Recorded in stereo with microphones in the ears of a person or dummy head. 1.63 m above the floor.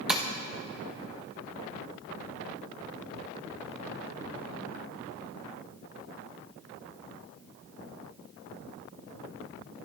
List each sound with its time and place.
0.1 s tapping: centre (ahead or behind), 1.3 m